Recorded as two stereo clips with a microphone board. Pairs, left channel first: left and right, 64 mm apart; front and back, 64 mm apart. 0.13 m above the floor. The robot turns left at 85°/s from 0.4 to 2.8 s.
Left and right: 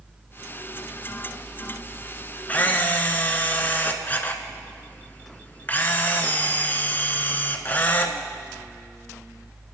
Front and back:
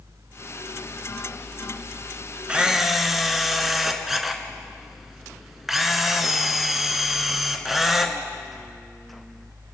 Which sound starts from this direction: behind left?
A camera shutter, at 2.5 s.